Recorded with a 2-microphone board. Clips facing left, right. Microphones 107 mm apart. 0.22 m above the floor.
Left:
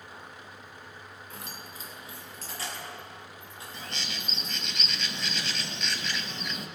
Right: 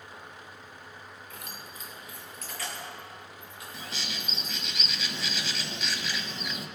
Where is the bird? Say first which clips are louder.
Even; 5° right (ahead or behind), 0.7 m.